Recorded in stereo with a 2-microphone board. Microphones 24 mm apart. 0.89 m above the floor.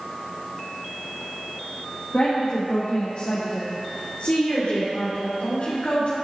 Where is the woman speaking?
50° left (ahead or behind), 1.5 m; by 6.2 s 70° left (ahead or behind), 3 m.